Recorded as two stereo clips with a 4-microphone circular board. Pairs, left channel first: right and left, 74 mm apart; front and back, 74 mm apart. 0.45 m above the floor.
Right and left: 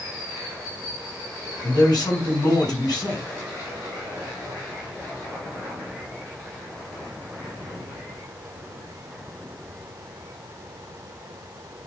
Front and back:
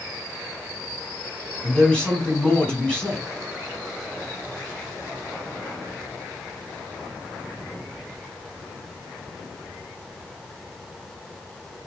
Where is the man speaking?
75° right, 4 m.